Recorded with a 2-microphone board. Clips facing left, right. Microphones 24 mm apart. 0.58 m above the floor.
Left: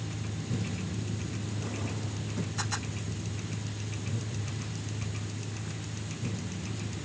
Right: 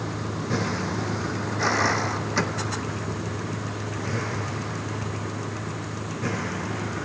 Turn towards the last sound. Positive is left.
turn(degrees=-60)  # may be behind; listen again after turning